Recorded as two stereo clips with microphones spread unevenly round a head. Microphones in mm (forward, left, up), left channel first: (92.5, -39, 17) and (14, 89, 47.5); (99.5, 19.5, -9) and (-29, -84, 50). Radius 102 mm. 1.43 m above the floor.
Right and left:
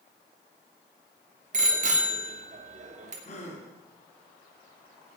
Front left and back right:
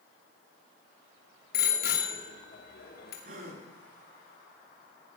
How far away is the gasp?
About 3.5 m.